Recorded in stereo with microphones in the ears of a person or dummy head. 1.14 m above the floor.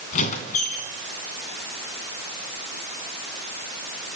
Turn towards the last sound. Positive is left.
turn(degrees=40)  # may be behind; listen again after turning